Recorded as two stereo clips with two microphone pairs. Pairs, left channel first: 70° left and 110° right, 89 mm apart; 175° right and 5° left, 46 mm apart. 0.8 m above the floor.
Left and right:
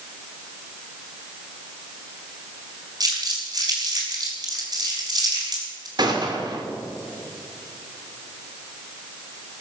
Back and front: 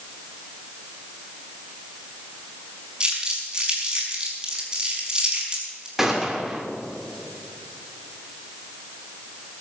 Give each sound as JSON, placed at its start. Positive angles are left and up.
{"t": 3.0, "sound": "crumpling", "azimuth_deg": -70, "distance_m": 5.0}
{"t": 6.0, "sound": "a gunshot", "azimuth_deg": -80, "distance_m": 2.5}